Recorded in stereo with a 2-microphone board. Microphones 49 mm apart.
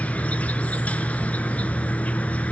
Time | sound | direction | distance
0.0 | an insect | 30° left (ahead or behind) | 0.9 m